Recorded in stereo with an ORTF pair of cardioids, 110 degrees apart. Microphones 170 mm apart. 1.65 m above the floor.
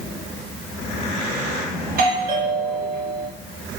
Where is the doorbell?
60° right, 3.5 m.